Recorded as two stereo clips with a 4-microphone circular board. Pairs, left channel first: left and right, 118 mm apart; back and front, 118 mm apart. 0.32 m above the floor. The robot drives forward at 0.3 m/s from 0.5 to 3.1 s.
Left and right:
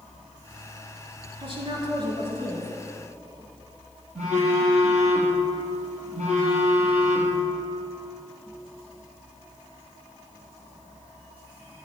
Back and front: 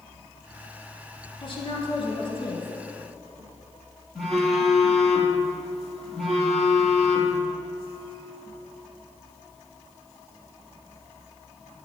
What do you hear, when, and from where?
1.4 s a woman speaking: 135° right, 5 m; by 2.7 s 140° right, 5.5 m
4.2 s a phone buzzing: 95° right, 4 m